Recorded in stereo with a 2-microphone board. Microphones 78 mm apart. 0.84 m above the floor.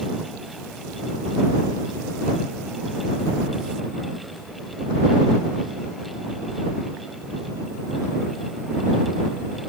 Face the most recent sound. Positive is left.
No sound to turn to.